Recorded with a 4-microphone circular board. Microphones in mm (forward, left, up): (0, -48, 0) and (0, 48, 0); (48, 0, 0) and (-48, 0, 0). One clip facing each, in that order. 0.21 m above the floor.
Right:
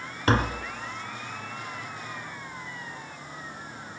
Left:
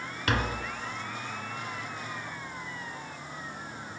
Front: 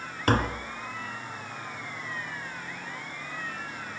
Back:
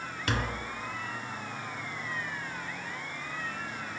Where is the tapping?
40° right, 1.4 m.